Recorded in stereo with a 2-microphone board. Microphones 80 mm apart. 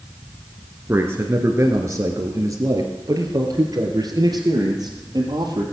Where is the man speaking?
30° right (ahead or behind), 1.8 m; by 5.6 s 55° right (ahead or behind), 3.5 m.